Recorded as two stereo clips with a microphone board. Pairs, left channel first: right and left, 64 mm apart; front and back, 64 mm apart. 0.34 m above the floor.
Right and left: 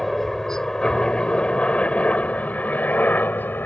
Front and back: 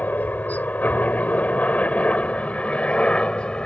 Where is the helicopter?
10° right; by 3.7 s 65° right.